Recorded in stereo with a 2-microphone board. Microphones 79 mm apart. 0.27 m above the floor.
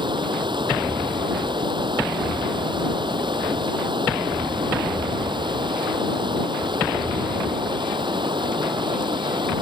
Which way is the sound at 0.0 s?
85° right.